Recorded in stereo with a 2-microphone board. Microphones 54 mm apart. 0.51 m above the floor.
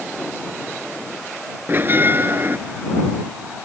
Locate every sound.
1.7 s a bell: 40° right (ahead or behind)